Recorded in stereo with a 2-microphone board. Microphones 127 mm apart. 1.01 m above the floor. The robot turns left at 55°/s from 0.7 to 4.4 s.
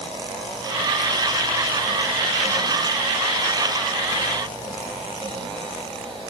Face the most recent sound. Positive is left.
No sound to turn to.